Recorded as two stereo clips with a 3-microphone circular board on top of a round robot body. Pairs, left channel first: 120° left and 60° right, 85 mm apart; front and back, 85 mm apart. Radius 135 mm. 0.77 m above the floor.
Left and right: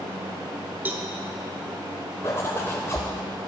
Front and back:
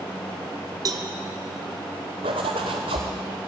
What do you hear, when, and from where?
0.8 s a cowbell: 135° right, 0.6 m
2.2 s a zipper: 175° right, 0.6 m